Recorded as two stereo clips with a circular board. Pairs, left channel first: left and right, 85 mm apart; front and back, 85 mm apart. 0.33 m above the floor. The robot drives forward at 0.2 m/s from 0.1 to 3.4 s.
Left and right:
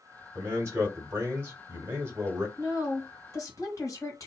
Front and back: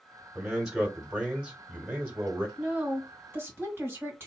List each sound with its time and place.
0.3 s a man speaking: 100° right, 1.5 m; by 2.5 s 130° right, 1.5 m
2.6 s a woman speaking: 115° left, 1.4 m; by 4.3 s 125° left, 1.5 m